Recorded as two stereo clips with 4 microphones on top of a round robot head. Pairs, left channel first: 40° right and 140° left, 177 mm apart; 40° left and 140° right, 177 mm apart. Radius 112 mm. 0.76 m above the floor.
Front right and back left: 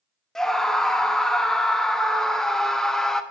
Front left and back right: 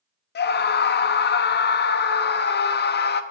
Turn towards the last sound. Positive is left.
turn(degrees=45)